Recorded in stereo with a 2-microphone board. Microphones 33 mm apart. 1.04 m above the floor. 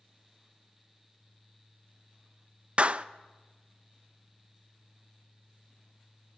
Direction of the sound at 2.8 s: 40° right (ahead or behind).